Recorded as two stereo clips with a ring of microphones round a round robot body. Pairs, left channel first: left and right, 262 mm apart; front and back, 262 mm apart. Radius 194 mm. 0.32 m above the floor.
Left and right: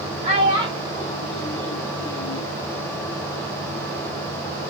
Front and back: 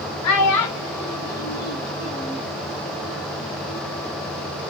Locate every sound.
0.2 s a child speaking: 20° right, 1.9 m; by 2.4 s 15° left, 2 m